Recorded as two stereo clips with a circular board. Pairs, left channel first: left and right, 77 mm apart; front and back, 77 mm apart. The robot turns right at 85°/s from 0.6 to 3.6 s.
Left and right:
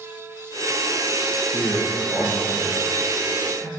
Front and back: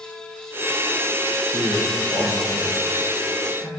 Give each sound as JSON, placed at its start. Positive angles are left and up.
{"t": 1.5, "sound": "a man speaking", "azimuth_deg": 135, "distance_m": 2.0}